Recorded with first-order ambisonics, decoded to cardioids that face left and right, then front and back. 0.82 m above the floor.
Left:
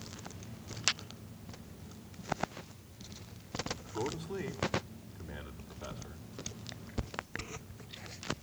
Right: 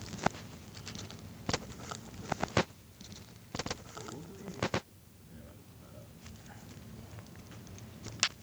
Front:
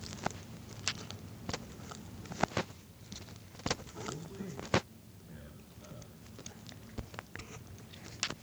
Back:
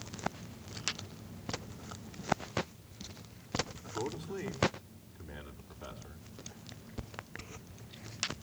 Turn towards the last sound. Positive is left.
turn(degrees=125)